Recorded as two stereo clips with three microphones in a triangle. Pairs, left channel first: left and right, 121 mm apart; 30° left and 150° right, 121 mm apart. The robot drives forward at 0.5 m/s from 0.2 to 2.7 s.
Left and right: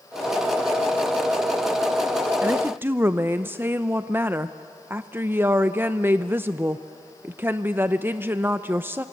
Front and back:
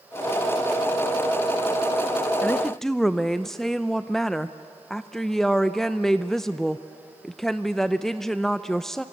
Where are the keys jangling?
I don't hear keys jangling.